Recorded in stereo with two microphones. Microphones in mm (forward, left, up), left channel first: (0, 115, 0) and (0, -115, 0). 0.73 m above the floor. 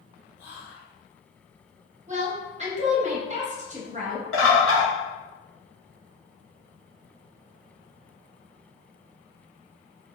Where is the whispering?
55° left (ahead or behind), 1.3 m.